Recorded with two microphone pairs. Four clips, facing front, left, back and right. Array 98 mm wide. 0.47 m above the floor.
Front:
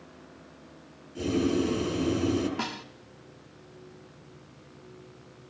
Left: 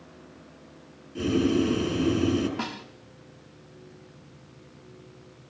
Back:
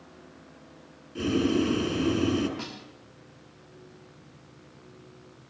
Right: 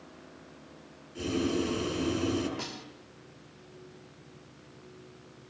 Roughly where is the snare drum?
Ahead left.